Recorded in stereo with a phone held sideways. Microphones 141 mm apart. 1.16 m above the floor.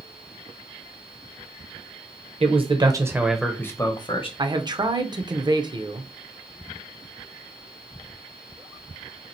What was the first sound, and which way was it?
A man speaking, 45° right (ahead or behind).